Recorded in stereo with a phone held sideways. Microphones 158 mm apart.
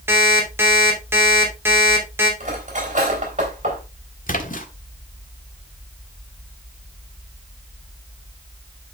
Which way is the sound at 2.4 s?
50° right (ahead or behind).